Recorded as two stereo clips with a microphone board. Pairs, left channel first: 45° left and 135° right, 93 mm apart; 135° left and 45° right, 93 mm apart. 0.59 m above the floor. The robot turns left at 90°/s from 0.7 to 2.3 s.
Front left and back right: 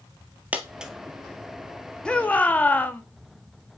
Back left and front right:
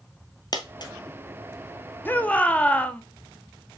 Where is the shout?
110° left, 0.7 m; by 3.0 s 90° left, 0.7 m.